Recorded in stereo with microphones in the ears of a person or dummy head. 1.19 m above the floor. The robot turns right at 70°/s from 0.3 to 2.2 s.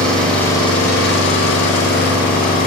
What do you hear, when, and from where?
0.0 s an engine running: 5° left, 1.8 m; by 2.7 s 135° left, 1.8 m